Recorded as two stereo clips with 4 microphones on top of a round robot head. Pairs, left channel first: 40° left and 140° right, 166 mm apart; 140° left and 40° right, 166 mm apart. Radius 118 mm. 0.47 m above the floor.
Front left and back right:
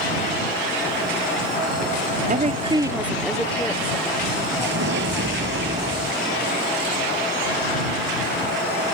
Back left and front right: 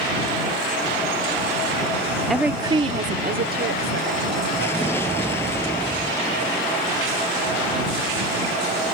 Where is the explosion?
145° right.